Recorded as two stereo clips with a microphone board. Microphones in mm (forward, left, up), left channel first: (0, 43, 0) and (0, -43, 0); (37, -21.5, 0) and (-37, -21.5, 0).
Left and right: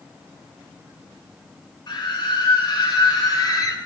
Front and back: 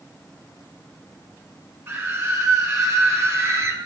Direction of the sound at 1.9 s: 125° left.